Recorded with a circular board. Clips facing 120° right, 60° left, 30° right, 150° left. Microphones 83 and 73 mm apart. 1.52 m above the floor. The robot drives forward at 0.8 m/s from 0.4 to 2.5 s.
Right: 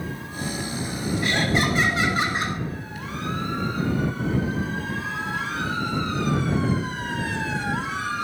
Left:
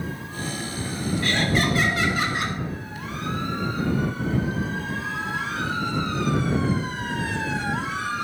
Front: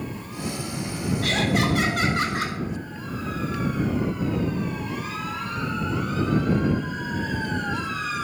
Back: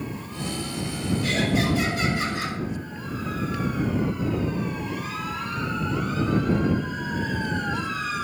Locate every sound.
1.2 s laughter: 50° right, 3.5 m; by 2.6 s 65° right, 2.5 m